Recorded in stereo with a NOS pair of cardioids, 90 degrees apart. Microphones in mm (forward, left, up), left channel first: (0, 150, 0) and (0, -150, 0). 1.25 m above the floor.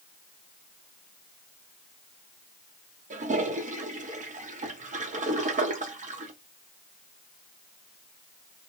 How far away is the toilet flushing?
About 0.8 m.